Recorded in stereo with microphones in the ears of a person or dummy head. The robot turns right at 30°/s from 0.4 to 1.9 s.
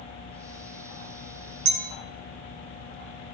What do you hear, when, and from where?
1.6 s a clink: 60° right (ahead or behind), 1.1 m